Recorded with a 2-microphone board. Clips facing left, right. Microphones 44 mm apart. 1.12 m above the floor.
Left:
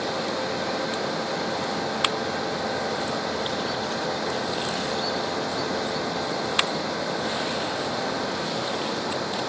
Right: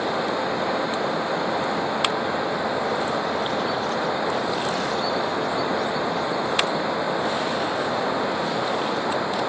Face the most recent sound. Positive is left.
turn(degrees=-20)  # may be behind; listen again after turning